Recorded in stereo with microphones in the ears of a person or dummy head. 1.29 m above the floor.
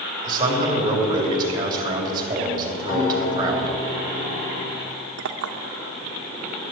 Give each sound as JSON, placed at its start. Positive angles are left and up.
{"t": 0.2, "sound": "a man speaking", "side_deg": -15, "distance_m": 3.0}
{"t": 2.9, "sound": "a guitar", "side_deg": 35, "distance_m": 5.0}
{"t": 5.2, "sound": "a clink", "side_deg": -65, "distance_m": 0.8}